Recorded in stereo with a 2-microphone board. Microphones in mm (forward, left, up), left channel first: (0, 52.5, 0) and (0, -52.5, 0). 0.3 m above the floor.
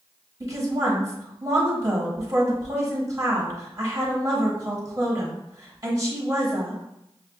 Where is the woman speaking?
30° right (ahead or behind), 1.2 m.